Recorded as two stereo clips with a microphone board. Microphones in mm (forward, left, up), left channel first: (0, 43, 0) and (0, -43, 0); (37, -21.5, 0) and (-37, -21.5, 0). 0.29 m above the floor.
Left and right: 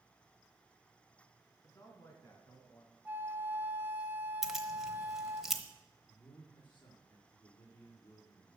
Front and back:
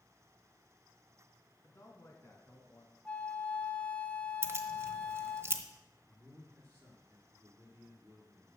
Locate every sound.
1.6 s a man speaking: 50° left, 4 m; by 3.0 s 45° left, 2.5 m
3.0 s a flute: 50° right, 0.9 m
4.4 s keys jangling: 170° right, 1.1 m
6.1 s a man speaking: 125° left, 4.5 m